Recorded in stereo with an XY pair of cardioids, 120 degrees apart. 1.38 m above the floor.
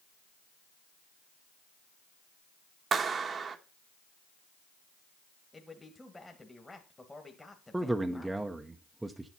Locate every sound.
2.9 s a clap: 40° right, 1.1 m
5.5 s a man speaking: 10° left, 1.6 m
7.7 s a man speaking: 10° right, 0.8 m